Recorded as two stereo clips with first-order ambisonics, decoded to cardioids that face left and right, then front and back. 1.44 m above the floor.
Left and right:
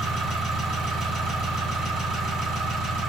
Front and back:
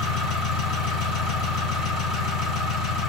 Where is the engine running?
45° right, 1.9 m.